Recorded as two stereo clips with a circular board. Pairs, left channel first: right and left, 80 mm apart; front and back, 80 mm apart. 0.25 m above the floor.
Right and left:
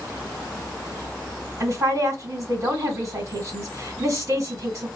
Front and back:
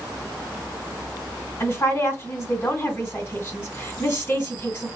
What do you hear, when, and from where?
1.6 s a woman speaking: 55° left, 2.5 m